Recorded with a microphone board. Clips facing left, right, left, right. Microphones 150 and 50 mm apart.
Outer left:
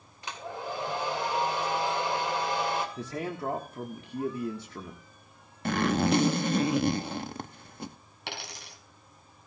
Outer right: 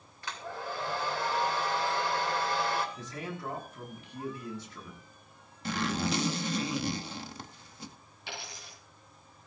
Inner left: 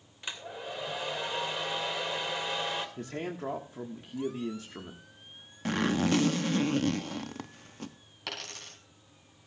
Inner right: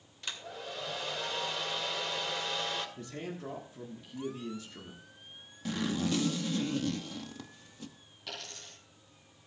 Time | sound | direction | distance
0.2 | a hair dryer | 20° left (ahead or behind) | 2.5 m
3.0 | a man speaking | 55° left (ahead or behind) | 1.6 m
5.7 | a zipper | 55° left (ahead or behind) | 0.7 m
8.3 | a dropped coin | 80° left | 3.5 m